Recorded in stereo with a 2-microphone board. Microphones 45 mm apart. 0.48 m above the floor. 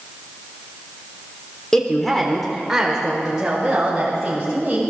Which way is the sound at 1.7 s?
10° left (ahead or behind).